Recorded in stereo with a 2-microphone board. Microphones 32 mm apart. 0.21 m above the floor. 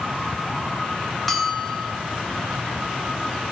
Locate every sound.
1.3 s a bell: centre (ahead or behind), 1.6 m